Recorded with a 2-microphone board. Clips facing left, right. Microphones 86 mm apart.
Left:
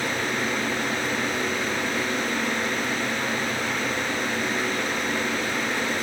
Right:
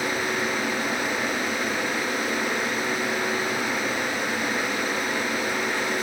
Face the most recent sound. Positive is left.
No sound to turn to.